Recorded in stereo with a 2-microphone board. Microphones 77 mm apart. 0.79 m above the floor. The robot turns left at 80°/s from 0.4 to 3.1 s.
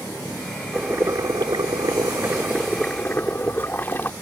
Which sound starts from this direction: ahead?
Boiling, at 0.7 s.